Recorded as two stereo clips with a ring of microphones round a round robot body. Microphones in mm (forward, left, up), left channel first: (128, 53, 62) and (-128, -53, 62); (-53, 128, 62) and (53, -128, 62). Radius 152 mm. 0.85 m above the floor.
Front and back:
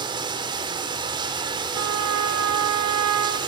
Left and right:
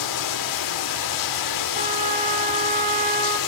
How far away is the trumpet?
About 2.5 m.